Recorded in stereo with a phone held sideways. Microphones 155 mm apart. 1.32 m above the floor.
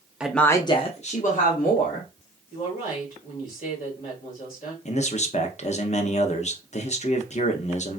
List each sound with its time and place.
0.2 s a woman speaking: 5° right (ahead or behind), 0.5 m; by 2.1 s 70° left (ahead or behind), 1.2 m
2.5 s a woman speaking: 60° left (ahead or behind), 1.9 m
4.8 s a man speaking: 50° left (ahead or behind), 0.6 m